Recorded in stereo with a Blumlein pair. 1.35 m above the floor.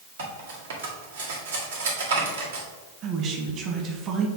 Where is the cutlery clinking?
65° right, 1.7 m.